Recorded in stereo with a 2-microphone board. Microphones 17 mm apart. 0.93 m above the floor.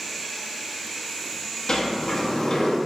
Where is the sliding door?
45° left (ahead or behind), 1.1 m.